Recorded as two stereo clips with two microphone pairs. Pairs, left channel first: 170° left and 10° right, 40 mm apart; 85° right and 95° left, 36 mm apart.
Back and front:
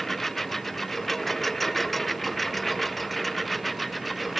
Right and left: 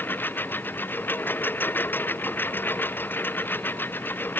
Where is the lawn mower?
105° right; by 4.4 s 100° right.